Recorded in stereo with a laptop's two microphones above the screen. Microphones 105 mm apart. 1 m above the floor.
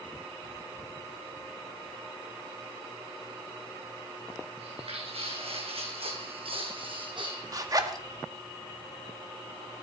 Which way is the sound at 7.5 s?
35° right (ahead or behind).